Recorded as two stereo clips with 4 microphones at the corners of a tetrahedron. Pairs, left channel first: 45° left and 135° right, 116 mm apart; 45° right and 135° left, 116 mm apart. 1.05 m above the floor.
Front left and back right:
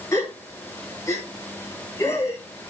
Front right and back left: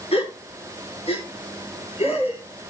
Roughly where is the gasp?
Ahead.